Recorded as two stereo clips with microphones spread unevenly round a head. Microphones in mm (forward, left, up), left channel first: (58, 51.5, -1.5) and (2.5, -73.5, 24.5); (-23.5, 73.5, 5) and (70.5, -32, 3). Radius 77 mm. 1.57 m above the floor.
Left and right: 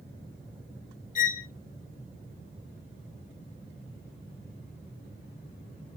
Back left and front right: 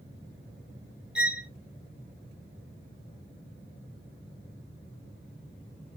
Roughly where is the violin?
Ahead left.